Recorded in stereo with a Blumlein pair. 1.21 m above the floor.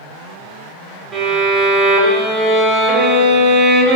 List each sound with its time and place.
1.1 s a violin: 10° right, 1.0 m